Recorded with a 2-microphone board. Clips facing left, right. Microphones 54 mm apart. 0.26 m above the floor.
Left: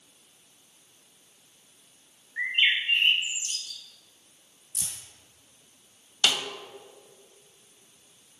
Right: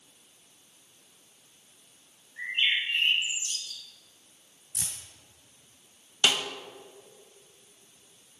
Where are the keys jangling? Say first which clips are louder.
Right 1 dB; 45° right (ahead or behind), 1.8 m.